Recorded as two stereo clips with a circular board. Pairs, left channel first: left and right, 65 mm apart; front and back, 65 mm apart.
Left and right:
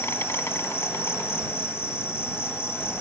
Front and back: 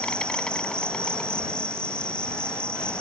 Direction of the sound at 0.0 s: 70° left.